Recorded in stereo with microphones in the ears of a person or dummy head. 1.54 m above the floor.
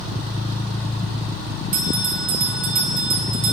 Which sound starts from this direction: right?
A bell, at 1.7 s.